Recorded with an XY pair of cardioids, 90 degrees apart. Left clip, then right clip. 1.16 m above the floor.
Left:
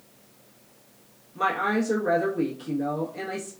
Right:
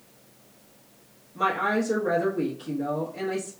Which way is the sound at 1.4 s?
Straight ahead.